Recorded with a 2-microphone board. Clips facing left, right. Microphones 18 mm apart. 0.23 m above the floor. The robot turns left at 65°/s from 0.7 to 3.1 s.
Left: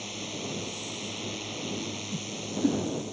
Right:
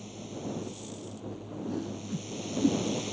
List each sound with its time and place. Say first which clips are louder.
0.0 s a drone: left 4 dB; 130° left; by 3.1 s 25° right
1.7 s a whoosh: left 1 dB; 35° right (ahead or behind); by 2.8 s 30° left (ahead or behind)